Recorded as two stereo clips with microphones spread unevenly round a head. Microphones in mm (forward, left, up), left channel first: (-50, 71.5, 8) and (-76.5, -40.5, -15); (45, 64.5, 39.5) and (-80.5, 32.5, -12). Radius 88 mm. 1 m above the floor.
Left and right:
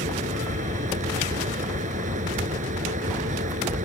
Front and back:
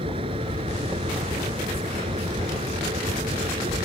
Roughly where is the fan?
Right.